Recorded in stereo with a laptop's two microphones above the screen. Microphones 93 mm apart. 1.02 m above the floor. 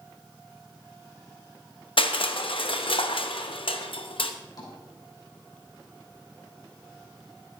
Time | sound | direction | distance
2.0 | crushing | 75° left (ahead or behind) | 0.8 m
4.6 | tapping | 45° left (ahead or behind) | 3.5 m